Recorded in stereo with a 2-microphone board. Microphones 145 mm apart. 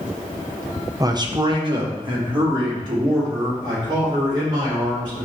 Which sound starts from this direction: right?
A man speaking, at 1.0 s.